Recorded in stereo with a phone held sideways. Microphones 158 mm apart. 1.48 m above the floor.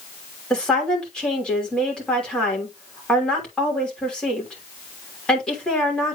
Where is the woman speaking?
5° left (ahead or behind), 3 m.